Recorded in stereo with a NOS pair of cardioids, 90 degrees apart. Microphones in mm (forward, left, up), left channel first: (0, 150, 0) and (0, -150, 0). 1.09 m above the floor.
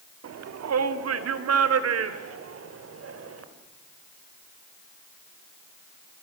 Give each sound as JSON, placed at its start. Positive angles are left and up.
{"t": 0.2, "sound": "a shout", "azimuth_deg": -55, "distance_m": 2.0}